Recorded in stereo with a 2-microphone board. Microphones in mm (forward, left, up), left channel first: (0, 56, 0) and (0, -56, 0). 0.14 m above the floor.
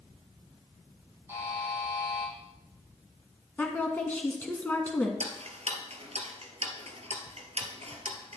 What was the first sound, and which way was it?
A buzzer, 20° right (ahead or behind).